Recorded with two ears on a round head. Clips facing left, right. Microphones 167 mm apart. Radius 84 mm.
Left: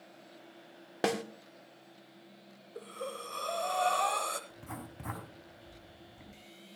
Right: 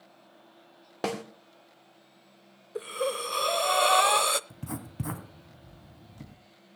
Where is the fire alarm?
I don't hear a fire alarm.